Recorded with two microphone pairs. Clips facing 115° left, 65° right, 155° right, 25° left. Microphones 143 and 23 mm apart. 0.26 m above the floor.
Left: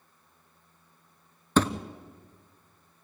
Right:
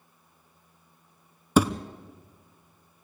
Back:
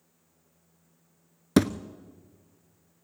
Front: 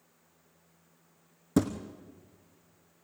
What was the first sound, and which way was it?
A thud, 145° right.